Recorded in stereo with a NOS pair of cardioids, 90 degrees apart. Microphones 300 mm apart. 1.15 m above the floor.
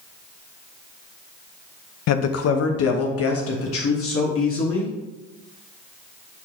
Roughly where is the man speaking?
Ahead left.